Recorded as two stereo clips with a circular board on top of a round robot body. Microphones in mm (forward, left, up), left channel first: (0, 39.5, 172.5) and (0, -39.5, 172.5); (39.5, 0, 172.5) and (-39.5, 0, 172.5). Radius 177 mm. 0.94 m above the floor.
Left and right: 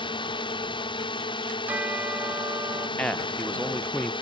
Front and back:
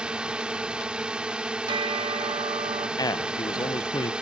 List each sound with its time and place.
0.0 s a drone: 100° left
1.7 s a bell: 160° right
3.0 s a man speaking: 20° left